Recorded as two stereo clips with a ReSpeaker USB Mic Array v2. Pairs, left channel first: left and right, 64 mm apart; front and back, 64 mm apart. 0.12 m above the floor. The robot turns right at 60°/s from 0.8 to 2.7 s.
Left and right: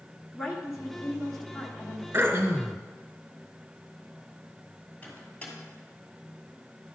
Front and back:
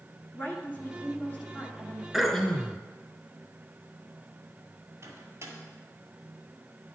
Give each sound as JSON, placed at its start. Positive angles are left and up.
{"t": 0.3, "sound": "a woman speaking", "azimuth_deg": -15, "distance_m": 1.5}
{"t": 2.1, "sound": "throat clearing", "azimuth_deg": -80, "distance_m": 1.0}
{"t": 5.0, "sound": "a microwave", "azimuth_deg": 150, "distance_m": 2.0}